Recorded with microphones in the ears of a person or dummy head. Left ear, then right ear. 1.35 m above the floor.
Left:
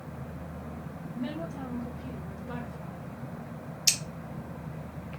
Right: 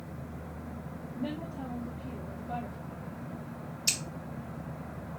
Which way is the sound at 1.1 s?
70° left (ahead or behind).